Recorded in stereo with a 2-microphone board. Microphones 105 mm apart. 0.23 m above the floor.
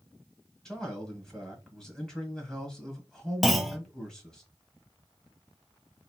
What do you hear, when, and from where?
0.7 s a man speaking: 5° left (ahead or behind), 1.3 m
3.4 s a clunk: centre (ahead or behind), 0.6 m